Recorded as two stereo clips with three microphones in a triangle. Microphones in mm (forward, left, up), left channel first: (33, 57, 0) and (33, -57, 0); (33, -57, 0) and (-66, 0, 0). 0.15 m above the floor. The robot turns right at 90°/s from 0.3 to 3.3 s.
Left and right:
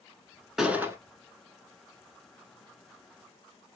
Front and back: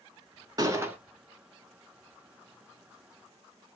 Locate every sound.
0.6 s a gunshot: 175° right, 0.7 m; by 1.0 s 140° right, 0.7 m